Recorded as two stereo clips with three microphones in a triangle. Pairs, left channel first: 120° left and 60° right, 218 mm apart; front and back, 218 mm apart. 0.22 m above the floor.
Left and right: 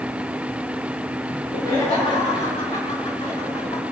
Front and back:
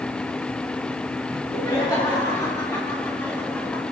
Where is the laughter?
65° left, 3 m; by 3.8 s 75° left, 1.6 m.